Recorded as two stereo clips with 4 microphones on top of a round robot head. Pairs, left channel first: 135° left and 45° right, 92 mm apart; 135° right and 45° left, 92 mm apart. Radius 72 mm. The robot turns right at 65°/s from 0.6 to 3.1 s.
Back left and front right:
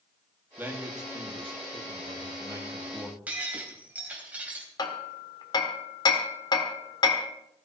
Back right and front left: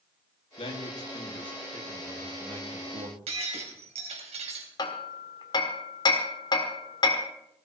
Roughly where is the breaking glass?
Ahead left.